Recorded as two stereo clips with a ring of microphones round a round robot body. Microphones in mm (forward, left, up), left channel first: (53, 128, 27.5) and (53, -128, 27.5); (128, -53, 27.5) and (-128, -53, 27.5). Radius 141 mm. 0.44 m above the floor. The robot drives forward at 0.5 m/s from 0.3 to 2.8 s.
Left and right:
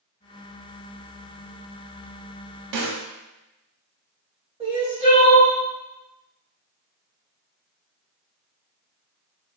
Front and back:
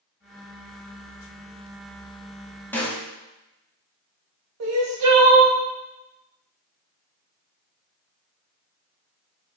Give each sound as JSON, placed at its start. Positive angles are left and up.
{"t": 2.7, "sound": "a snare drum", "azimuth_deg": -85, "distance_m": 0.7}
{"t": 4.6, "sound": "crying", "azimuth_deg": -160, "distance_m": 0.8}